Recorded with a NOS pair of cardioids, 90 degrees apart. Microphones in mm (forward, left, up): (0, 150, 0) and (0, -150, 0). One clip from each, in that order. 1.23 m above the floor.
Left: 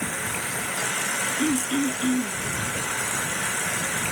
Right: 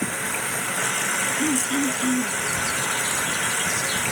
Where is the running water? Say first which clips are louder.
Right 2 dB; 55° right.